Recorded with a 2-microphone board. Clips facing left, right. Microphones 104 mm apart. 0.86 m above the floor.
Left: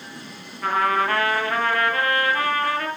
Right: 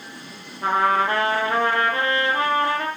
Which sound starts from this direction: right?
A trumpet, at 0.6 s.